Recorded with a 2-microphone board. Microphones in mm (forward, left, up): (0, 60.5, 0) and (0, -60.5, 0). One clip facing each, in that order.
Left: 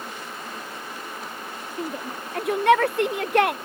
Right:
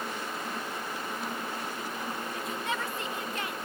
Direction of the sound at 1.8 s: 60° left (ahead or behind).